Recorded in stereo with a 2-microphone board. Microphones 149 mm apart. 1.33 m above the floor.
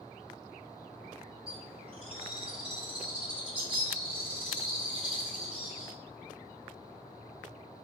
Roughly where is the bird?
Right.